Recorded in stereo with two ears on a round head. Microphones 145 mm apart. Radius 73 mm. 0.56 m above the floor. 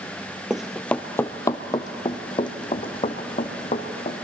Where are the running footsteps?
5° right (ahead or behind), 0.7 m; by 4.1 s 35° left (ahead or behind), 2.5 m.